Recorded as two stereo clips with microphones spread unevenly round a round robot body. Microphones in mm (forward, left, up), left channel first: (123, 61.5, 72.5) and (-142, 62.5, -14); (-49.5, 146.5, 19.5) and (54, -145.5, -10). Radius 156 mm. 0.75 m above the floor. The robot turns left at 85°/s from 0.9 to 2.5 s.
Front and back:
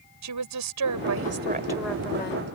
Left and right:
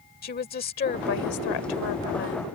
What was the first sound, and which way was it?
A woman speaking, 175° left.